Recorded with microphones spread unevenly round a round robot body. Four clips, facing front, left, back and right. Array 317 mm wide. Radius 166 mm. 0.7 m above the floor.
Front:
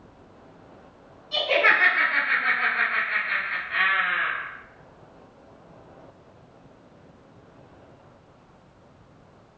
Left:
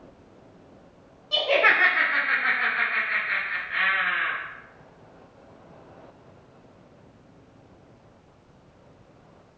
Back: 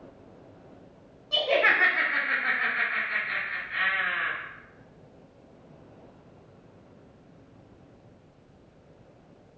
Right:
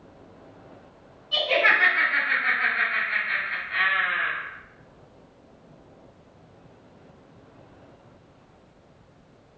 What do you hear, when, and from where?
1.3 s laughter: 150° left, 1.0 m; by 4.3 s 15° right, 1.1 m